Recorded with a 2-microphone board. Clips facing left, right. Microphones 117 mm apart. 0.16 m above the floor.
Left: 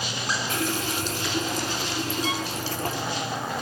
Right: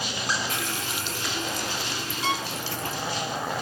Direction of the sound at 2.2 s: 70° right (ahead or behind).